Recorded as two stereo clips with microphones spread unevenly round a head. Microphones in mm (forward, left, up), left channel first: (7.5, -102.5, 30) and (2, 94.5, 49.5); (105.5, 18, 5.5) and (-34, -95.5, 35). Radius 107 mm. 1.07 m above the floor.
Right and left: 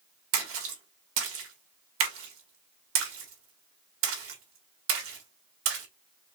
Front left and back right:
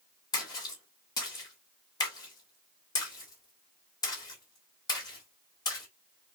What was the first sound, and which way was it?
A splash, 105° left.